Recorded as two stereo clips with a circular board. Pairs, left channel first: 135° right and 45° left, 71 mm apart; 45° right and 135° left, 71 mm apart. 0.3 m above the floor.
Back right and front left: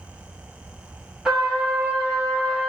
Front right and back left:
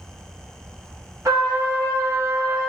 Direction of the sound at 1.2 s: 125° left.